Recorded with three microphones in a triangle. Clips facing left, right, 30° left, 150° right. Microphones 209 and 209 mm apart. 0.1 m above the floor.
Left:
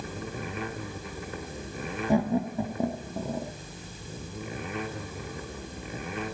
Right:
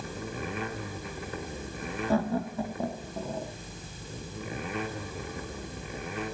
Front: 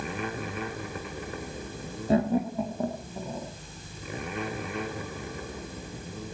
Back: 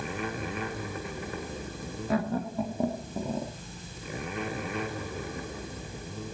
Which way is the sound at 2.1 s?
35° left.